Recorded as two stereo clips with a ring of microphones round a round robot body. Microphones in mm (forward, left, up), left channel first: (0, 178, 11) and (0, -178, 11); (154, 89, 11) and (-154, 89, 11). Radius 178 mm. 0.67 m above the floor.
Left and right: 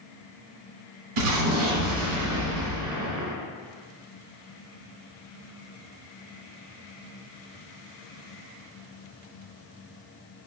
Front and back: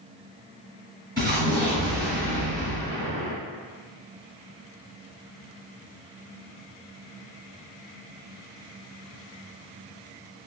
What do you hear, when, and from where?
1.2 s an explosion: 80° right, 1.1 m